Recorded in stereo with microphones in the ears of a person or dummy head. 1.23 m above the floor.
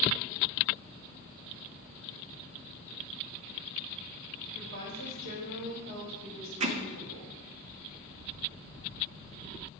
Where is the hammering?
35° right (ahead or behind), 0.7 m.